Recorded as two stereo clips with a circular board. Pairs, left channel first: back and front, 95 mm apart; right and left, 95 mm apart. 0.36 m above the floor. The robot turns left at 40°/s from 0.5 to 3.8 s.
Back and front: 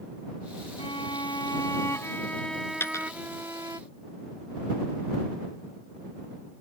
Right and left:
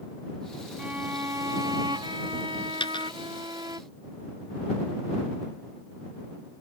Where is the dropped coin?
115° right; by 3.1 s 125° right.